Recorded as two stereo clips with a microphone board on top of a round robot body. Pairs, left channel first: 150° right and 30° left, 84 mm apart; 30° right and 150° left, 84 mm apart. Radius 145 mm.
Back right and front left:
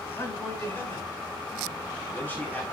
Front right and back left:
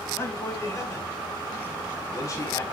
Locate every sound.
0.2 s a man speaking: 90° right, 5.5 m; by 2.6 s 80° right, 4.5 m